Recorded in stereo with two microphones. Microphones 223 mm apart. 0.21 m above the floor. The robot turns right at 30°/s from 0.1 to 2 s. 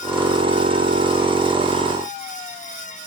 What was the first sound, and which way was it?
Only background noise.